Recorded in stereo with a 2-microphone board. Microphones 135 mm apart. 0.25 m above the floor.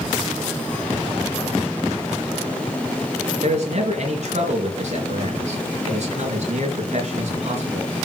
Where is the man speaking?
55° right (ahead or behind), 4 m.